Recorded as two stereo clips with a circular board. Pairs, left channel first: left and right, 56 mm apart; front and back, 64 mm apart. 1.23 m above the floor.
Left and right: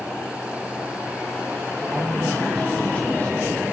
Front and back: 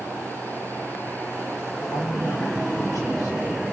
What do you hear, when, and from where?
1.8 s a man speaking: 15° right, 1.9 m; by 3.6 s 35° left, 3.5 m